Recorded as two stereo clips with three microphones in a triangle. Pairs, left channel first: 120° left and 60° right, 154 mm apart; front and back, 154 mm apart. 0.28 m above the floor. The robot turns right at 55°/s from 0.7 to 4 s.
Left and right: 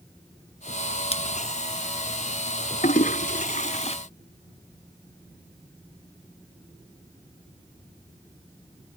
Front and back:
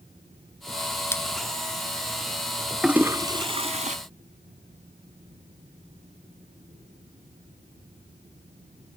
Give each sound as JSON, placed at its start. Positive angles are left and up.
{"t": 1.1, "sound": "a splash", "azimuth_deg": 70}
{"t": 2.8, "sound": "a toilet flushing", "azimuth_deg": 95}